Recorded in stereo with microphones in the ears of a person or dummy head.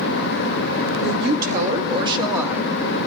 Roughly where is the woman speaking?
Right.